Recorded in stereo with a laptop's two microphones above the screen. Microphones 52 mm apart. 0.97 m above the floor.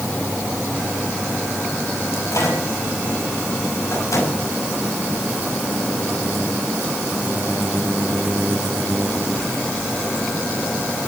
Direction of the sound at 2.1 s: 85° left.